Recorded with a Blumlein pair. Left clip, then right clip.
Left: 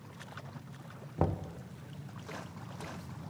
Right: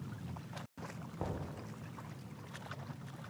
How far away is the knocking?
About 0.6 m.